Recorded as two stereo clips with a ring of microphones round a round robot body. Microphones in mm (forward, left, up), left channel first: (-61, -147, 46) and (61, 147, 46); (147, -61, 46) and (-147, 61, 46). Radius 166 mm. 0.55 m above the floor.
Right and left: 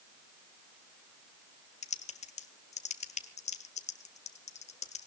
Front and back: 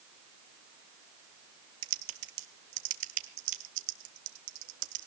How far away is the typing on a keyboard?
About 1.5 m.